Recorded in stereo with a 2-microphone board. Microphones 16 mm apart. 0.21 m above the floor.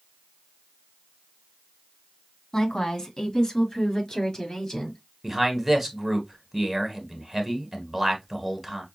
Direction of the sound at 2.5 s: 30° left (ahead or behind).